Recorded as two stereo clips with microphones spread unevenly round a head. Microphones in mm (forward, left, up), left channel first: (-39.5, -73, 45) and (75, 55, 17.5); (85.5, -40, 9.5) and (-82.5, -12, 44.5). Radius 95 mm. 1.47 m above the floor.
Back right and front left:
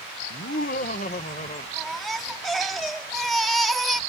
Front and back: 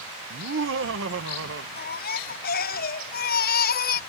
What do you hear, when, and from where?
0.3 s laughter: 170° right; by 1.7 s 170° left
1.8 s a baby crying: 45° right